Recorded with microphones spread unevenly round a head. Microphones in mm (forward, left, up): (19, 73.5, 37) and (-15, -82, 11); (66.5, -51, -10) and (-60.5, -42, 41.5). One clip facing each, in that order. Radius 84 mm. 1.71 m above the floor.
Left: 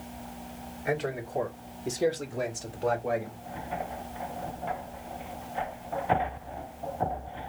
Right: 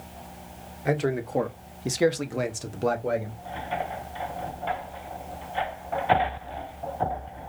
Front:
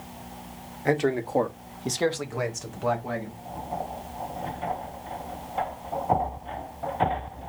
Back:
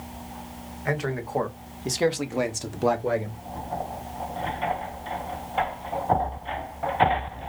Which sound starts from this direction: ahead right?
A man speaking, at 0.8 s.